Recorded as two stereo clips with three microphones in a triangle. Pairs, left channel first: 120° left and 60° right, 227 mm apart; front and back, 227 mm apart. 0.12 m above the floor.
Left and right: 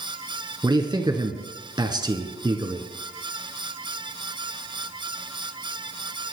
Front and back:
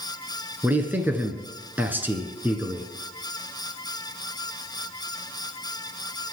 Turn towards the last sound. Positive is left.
turn(degrees=-110)